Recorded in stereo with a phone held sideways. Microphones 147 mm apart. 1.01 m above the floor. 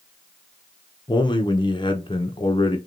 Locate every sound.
1.1 s a man speaking: 30° left (ahead or behind), 0.8 m